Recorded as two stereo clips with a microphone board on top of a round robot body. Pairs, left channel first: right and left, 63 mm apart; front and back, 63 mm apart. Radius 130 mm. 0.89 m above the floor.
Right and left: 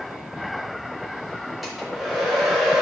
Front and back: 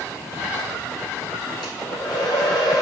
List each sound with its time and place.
1.6 s a hair dryer: 5° left, 0.8 m